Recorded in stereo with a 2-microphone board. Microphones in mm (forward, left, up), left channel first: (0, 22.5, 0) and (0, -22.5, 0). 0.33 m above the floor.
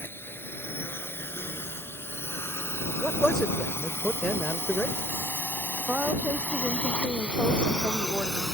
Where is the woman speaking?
40° right (ahead or behind).